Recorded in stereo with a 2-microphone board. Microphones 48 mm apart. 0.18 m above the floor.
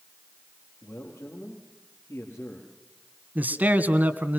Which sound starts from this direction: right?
A man speaking, at 3.4 s.